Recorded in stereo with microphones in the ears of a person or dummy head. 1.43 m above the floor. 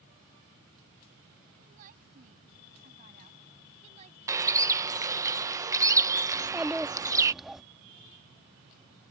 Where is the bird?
20° right (ahead or behind).